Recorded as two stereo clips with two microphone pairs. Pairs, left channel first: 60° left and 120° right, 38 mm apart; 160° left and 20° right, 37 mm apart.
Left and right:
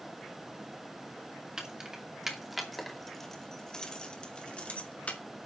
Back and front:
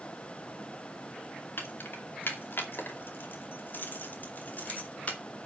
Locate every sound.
1.6 s keys jangling: 170° left, 2.5 m; by 5.2 s 115° left, 2.5 m